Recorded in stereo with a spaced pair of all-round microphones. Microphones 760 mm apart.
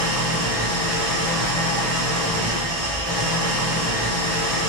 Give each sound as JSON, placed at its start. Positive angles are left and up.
{"t": 0.0, "sound": "an engine running", "side_deg": 20, "distance_m": 1.0}